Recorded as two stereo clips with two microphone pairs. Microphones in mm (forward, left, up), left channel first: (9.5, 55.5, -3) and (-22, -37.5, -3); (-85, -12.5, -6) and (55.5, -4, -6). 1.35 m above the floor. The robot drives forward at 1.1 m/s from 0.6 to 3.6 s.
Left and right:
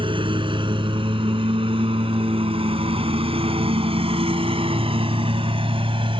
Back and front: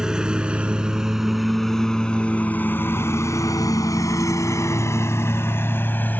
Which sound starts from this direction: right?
A lawn mower, at 0.0 s.